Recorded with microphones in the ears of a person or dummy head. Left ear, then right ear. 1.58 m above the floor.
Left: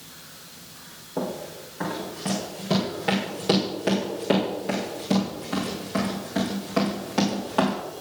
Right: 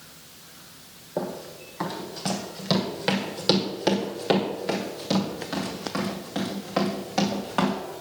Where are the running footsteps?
55° right (ahead or behind), 3.5 m; by 7.8 s 15° right (ahead or behind), 5 m.